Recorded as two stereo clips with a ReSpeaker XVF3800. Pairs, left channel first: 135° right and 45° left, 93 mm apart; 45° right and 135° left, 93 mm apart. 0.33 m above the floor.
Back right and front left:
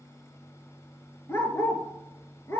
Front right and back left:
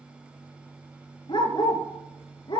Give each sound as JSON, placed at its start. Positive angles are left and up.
{"t": 1.3, "sound": "a dog barking", "azimuth_deg": -75, "distance_m": 1.1}